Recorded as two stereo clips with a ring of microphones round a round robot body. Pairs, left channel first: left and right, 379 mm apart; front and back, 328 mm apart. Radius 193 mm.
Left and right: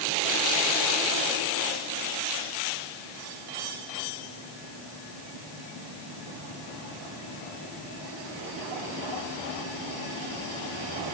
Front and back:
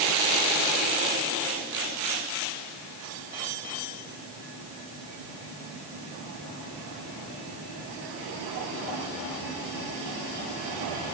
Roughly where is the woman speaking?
No woman speaking in this recording.